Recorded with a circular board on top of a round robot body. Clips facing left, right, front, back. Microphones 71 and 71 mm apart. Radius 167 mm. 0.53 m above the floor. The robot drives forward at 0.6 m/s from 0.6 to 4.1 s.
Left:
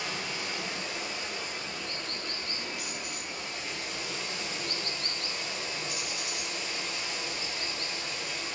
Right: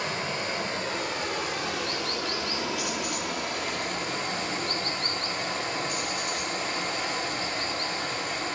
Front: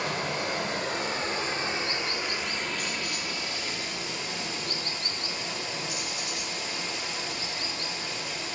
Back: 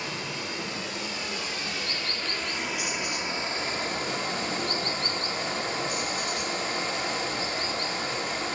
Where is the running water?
40° right, 1.5 m; by 8.6 s 135° right, 1.3 m.